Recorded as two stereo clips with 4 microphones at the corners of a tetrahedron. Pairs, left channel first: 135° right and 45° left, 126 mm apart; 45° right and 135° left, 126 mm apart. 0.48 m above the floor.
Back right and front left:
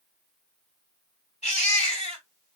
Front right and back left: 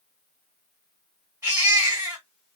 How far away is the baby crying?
About 3 m.